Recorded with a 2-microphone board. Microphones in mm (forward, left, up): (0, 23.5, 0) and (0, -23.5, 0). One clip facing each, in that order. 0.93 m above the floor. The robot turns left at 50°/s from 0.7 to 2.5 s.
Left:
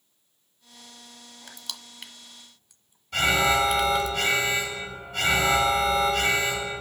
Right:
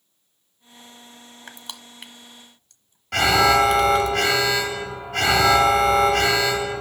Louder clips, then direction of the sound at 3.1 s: Right 5 dB; 75° right (ahead or behind).